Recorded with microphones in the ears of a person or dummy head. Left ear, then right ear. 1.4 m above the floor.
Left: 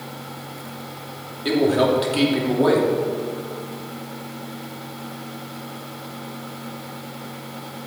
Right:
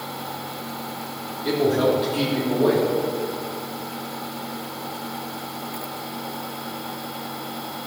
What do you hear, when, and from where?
1.4 s a man speaking: 30° left (ahead or behind), 3 m